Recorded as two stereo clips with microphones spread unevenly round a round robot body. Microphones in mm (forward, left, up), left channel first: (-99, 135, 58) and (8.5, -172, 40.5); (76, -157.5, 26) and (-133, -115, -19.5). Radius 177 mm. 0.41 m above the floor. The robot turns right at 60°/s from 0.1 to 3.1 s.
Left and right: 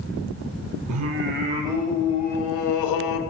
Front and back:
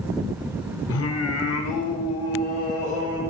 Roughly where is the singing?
Ahead right.